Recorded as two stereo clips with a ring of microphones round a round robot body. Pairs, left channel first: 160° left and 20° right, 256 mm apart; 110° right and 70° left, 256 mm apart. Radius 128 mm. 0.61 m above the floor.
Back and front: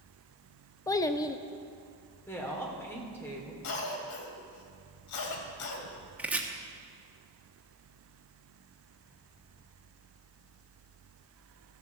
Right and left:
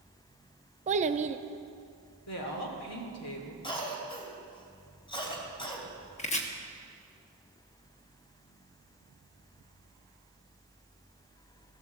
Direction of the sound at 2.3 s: 125° right.